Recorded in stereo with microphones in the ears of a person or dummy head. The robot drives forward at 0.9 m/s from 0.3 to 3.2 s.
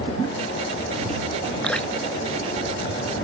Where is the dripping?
5° left (ahead or behind).